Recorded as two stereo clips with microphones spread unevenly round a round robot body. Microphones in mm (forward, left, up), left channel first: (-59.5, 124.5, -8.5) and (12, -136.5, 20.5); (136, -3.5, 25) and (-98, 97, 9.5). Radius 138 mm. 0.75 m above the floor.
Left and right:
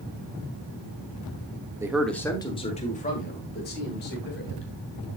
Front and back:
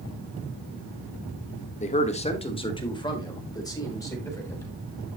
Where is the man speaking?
5° left, 1.1 m; by 4.7 s 55° left, 4 m.